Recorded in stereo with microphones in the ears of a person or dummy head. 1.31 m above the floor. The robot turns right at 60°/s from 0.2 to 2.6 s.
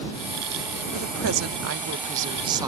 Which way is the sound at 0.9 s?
120° right.